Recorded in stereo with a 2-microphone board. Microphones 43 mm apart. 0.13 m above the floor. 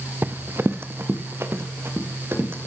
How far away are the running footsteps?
About 0.5 m.